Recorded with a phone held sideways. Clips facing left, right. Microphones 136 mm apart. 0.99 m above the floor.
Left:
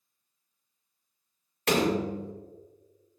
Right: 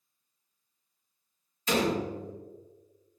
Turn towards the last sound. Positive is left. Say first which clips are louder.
# left 2 dB
turn(degrees=70)  # may be behind; listen again after turning